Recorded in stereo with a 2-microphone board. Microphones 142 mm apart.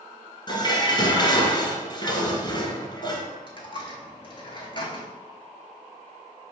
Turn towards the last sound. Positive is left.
turn(degrees=35)  # may be behind; listen again after turning